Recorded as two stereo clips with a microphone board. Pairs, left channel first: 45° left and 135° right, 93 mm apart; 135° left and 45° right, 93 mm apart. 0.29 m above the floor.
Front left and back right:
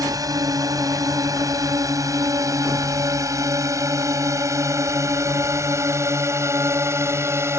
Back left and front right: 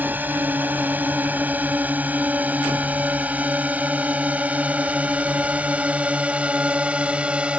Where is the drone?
110° right.